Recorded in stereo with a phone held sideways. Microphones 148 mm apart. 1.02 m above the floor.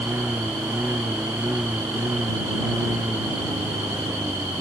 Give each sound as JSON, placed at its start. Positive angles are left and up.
{"t": 0.0, "sound": "a lawn mower", "side_deg": -10}